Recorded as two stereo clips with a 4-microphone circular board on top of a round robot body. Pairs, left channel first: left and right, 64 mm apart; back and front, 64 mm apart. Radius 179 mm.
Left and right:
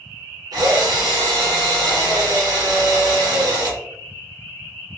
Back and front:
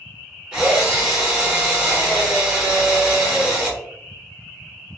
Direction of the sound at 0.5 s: 75° right.